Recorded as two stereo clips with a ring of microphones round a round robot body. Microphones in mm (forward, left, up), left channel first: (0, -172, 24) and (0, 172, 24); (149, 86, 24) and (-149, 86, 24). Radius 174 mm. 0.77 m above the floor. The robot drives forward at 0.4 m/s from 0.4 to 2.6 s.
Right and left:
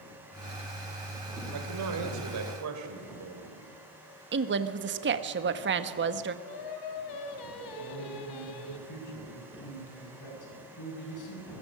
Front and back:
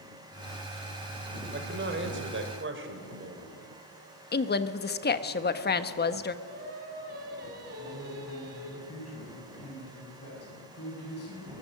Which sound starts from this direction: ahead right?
A man speaking, at 7.8 s.